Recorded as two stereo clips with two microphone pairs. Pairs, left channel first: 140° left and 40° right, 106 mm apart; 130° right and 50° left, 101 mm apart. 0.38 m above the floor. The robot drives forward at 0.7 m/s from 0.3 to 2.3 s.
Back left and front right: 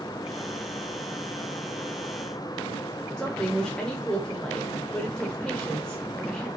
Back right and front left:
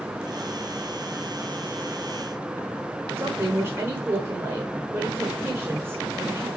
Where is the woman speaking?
65° left, 0.8 m.